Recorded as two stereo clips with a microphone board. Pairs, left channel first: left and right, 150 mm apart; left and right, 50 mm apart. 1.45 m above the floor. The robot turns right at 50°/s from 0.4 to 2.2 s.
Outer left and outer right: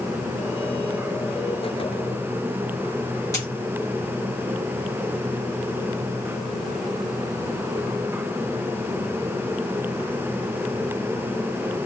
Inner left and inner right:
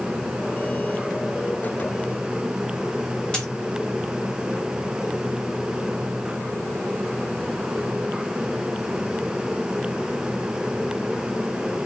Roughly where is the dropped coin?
Left.